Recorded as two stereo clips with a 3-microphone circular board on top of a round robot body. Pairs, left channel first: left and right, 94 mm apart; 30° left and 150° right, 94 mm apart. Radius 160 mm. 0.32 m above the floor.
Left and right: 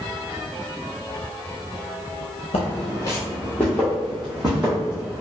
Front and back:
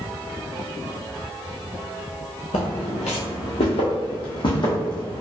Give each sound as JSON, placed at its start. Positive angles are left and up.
{"t": 2.5, "sound": "footsteps", "azimuth_deg": 60, "distance_m": 0.6}